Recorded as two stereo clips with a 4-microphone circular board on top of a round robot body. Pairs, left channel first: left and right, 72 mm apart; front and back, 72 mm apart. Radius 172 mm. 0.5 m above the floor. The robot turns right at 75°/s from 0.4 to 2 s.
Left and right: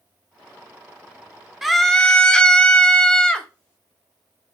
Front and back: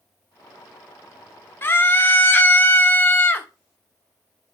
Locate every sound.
1.6 s a scream: 5° right, 0.7 m; by 3.5 s 25° left, 0.7 m